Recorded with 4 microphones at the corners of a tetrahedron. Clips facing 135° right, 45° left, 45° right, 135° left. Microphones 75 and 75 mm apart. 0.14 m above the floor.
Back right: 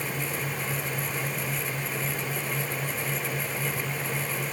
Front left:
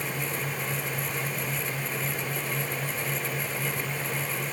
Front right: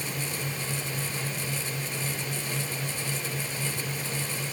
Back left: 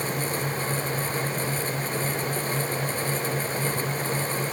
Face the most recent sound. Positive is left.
No sound to turn to.